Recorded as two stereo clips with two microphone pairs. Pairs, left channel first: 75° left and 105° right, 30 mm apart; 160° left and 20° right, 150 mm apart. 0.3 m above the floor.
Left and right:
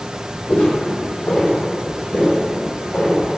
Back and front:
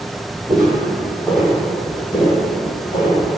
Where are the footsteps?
35° left, 0.7 m; by 3.2 s 120° left, 1.3 m.